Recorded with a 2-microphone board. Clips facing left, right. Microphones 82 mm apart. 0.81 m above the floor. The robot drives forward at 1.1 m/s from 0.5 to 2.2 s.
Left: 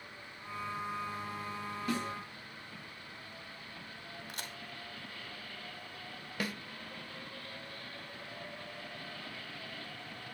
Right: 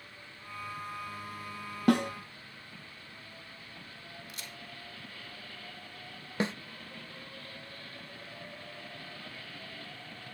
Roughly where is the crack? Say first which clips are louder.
Left 2 dB; left.